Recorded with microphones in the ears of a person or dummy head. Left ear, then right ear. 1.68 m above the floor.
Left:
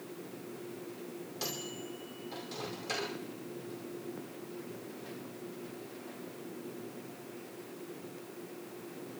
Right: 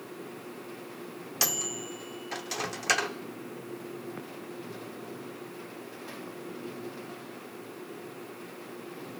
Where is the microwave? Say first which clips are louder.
Right 10 dB; 55° right (ahead or behind), 0.7 m.